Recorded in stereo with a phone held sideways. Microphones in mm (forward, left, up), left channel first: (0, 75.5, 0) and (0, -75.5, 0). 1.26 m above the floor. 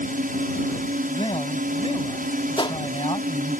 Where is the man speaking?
35° left (ahead or behind).